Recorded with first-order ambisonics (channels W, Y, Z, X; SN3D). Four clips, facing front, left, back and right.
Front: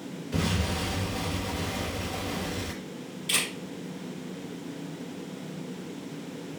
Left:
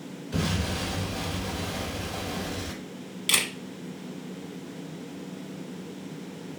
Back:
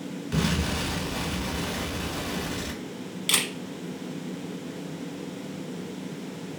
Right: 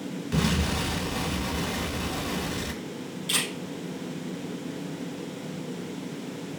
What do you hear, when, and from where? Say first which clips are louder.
0.3 s an explosion: right 3 dB, back 2 dB; 130° right, 1.1 m
3.3 s a camera shutter: left 3 dB, back 3 dB; 135° left, 0.8 m